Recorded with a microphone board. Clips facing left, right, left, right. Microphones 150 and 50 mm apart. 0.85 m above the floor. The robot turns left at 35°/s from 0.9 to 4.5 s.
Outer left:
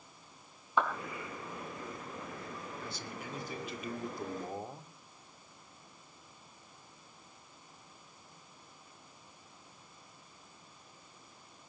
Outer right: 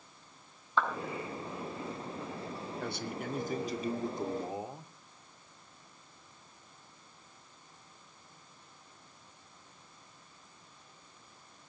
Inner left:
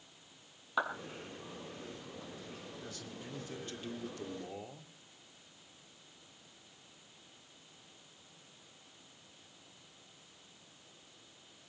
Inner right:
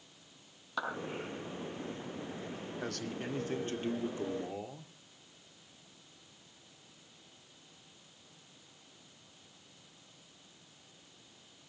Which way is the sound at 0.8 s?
15° left (ahead or behind).